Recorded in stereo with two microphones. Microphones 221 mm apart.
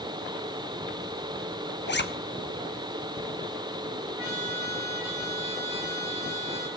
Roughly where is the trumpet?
Right.